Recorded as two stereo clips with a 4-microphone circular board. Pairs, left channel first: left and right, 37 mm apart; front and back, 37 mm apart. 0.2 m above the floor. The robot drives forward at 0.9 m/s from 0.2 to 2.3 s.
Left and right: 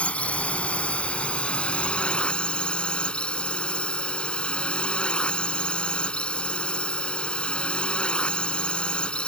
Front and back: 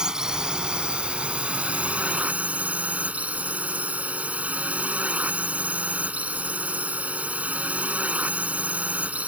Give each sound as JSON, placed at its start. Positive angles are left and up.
{"t": 0.0, "sound": "a drone", "azimuth_deg": 120}